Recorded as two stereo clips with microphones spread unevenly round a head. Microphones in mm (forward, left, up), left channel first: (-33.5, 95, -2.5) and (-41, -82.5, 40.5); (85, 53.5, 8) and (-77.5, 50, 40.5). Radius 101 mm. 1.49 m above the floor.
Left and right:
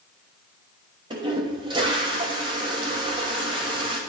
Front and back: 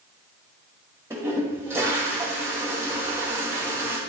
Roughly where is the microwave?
No microwave in this recording.